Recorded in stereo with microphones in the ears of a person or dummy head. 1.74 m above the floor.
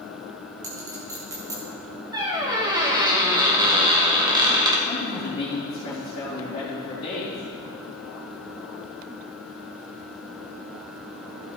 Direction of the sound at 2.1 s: 20° right (ahead or behind).